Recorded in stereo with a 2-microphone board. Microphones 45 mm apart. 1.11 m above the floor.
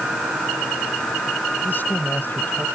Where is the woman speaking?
50° left (ahead or behind).